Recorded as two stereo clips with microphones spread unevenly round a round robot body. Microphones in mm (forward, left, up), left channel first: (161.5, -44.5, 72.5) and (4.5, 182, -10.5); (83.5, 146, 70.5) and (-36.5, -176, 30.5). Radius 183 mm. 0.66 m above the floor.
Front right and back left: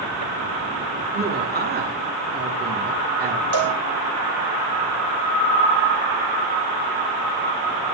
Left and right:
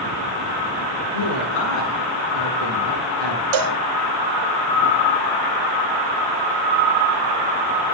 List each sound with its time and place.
1.1 s a woman speaking: 70° left, 9.5 m
3.5 s a cowbell: 100° right, 2 m